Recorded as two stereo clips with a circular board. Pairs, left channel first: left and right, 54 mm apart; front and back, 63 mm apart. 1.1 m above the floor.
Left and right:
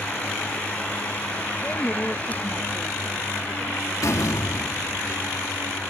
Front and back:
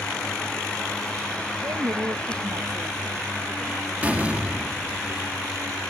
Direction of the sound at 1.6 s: 160° left.